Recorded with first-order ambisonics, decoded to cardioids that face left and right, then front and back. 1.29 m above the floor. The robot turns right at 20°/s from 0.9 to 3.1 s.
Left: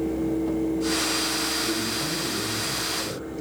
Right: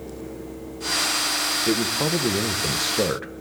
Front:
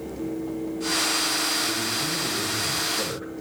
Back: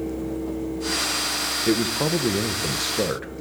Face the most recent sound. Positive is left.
turn(degrees=-120)